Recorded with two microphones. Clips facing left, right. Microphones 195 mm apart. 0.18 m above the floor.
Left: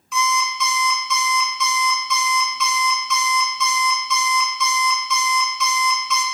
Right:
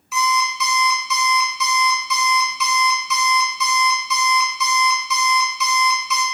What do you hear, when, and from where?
0.1 s an alarm clock: 5° right (ahead or behind), 0.6 m